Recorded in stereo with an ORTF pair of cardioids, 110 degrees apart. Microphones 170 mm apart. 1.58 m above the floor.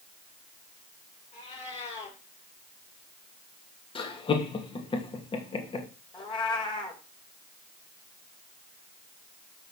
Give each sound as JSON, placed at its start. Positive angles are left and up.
{"t": 1.3, "sound": "a cat meowing", "azimuth_deg": 40, "distance_m": 6.0}
{"t": 4.0, "sound": "laughter", "azimuth_deg": 30, "distance_m": 3.0}
{"t": 6.1, "sound": "a cat meowing", "azimuth_deg": 30, "distance_m": 3.5}